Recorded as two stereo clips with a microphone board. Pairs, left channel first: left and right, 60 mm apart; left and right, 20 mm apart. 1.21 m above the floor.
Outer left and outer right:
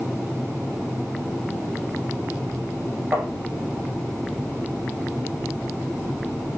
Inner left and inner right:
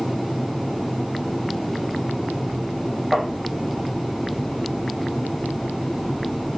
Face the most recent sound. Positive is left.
turn(degrees=-40)  # may be behind; listen again after turning